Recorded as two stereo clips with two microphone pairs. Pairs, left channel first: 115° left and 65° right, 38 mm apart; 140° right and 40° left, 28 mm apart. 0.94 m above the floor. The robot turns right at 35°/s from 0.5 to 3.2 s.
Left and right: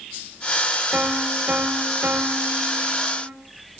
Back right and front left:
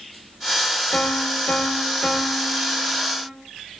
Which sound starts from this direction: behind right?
A piano, at 0.9 s.